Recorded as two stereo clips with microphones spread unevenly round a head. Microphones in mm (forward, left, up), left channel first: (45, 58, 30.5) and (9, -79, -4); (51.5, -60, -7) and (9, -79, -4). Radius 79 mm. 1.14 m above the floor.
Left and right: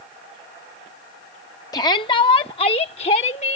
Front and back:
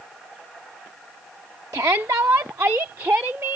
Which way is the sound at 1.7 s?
145° left.